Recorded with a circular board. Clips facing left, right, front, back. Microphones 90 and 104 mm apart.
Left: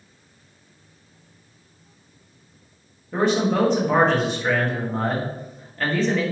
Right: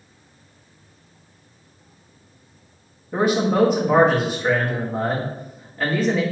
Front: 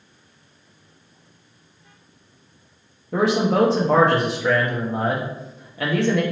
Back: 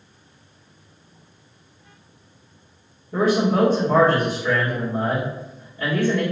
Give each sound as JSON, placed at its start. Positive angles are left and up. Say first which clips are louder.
{"t": 3.1, "sound": "a man speaking", "louder": "right 1 dB, even", "azimuth_deg": -10, "distance_m": 1.0}